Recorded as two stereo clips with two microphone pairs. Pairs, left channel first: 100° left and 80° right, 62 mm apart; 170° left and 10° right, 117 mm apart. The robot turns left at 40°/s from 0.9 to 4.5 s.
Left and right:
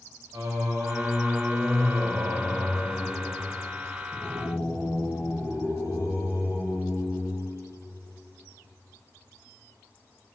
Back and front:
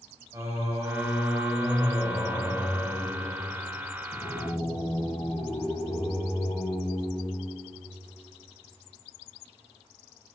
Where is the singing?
75° right, 6.5 m; by 7.5 s 140° left, 6.5 m.